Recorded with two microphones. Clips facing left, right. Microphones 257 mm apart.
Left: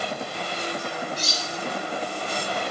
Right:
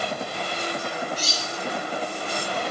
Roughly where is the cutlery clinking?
Right.